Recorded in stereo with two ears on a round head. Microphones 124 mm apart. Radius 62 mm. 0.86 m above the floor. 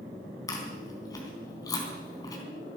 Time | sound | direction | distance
0.5 | chewing | 25° left (ahead or behind) | 3.5 m